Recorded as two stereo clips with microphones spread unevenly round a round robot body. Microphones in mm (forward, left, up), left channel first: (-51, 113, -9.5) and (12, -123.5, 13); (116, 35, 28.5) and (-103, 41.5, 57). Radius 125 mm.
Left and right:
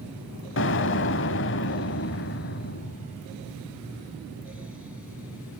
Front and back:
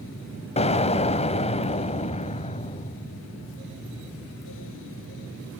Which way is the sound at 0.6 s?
60° left.